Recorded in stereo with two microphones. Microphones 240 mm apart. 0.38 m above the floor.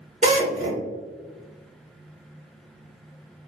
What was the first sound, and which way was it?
A drill, 30° right (ahead or behind).